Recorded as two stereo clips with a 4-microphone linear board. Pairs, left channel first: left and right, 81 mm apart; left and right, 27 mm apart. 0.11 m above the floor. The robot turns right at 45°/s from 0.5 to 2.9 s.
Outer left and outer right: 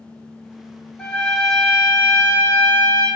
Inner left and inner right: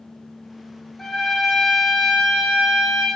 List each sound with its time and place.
1.0 s a trumpet: 160° left, 0.6 m; by 3.1 s 115° right, 0.6 m